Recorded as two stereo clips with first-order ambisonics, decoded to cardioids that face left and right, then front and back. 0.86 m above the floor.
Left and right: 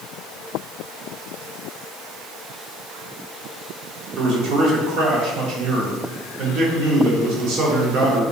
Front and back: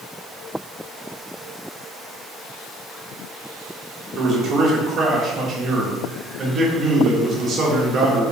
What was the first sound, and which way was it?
A man speaking, 125° right.